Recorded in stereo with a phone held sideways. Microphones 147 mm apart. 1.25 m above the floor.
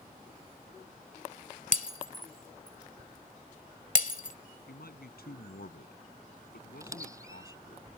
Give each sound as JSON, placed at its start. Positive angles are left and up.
{"t": 1.7, "sound": "breaking glass", "side_deg": 60}
{"t": 4.7, "sound": "a man speaking", "side_deg": 80}
{"t": 6.8, "sound": "a squeak", "side_deg": -20}